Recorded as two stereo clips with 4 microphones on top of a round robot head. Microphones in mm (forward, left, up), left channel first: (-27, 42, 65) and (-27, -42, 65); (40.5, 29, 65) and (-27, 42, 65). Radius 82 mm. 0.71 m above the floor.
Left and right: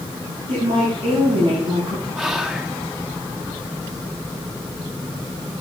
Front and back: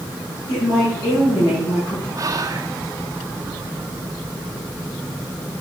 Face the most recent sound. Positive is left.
turn(degrees=-175)